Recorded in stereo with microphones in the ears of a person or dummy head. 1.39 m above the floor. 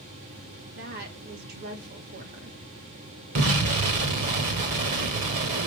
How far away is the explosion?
About 1.3 m.